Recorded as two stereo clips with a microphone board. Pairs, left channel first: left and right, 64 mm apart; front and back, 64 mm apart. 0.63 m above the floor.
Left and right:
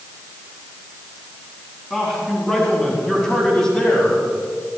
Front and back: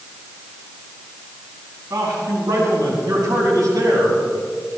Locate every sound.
1.9 s a man speaking: 175° left, 5 m; by 4.2 s 165° left, 3.5 m